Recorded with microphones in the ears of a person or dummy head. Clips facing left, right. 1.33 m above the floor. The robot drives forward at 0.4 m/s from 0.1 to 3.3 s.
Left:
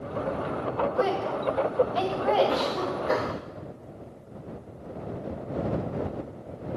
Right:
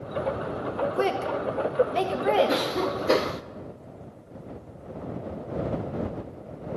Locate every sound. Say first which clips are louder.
1.0 s a woman speaking: even; 35° right (ahead or behind), 1.6 m; by 2.8 s 25° right (ahead or behind), 2.5 m
2.5 s a cough: right 1 dB; 25° right (ahead or behind), 0.8 m; by 3.4 s 45° right (ahead or behind), 0.5 m